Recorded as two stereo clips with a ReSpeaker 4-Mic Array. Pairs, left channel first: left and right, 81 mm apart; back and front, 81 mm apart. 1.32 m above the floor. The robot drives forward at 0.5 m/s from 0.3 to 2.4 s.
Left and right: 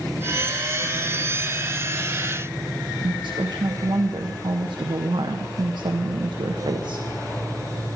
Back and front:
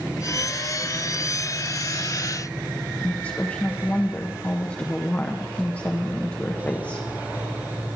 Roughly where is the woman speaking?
Behind right.